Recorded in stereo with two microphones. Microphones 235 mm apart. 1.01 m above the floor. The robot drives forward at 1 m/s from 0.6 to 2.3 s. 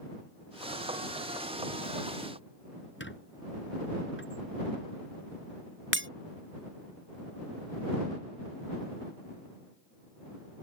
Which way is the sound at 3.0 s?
55° left (ahead or behind).